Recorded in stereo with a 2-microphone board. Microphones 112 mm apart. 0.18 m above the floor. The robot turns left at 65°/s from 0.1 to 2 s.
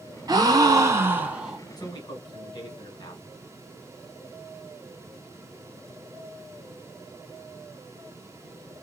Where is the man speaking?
35° left (ahead or behind), 1.5 m; by 3.2 s 45° left (ahead or behind), 1.5 m.